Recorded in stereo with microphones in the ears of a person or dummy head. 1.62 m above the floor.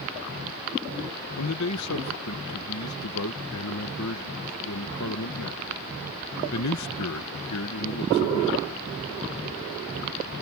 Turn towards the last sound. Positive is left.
turn(degrees=90)